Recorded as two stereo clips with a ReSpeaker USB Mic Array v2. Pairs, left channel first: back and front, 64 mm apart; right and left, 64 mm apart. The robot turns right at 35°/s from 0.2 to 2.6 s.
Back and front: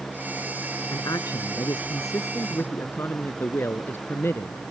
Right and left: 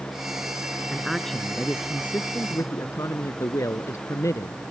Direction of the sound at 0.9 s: 170° left.